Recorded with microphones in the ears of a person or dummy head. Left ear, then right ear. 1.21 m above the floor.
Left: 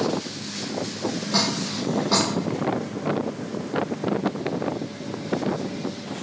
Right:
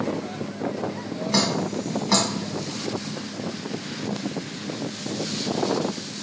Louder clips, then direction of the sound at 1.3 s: Right 1 dB; 20° right (ahead or behind).